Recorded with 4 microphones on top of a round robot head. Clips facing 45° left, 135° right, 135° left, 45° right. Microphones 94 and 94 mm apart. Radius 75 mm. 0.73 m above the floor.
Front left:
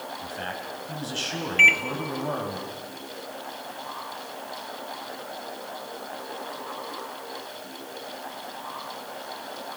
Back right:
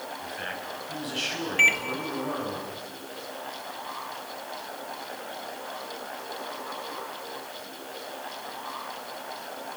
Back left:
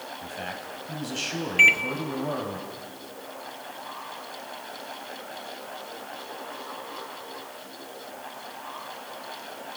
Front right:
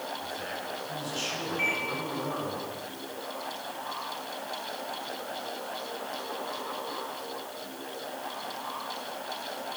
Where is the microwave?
145° left, 1.4 m.